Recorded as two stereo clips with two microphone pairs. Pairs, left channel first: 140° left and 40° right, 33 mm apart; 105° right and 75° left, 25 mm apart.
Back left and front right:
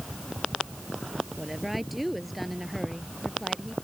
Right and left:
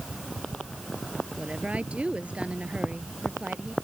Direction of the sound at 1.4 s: 45° left.